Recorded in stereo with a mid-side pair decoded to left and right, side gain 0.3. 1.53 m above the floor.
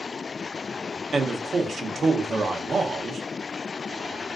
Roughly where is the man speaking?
Ahead right.